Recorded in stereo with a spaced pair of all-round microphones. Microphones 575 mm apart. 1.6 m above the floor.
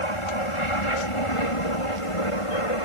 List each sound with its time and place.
0.0 s an aircraft: 55° left (ahead or behind); by 2.9 s 65° left (ahead or behind)